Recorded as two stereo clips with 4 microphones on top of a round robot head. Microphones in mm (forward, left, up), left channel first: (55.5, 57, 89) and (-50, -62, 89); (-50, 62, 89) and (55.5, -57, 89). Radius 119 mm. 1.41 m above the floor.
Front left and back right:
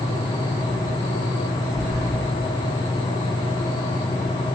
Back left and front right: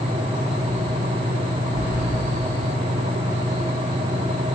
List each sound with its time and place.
1.8 s keys jangling: 85° right, 2.5 m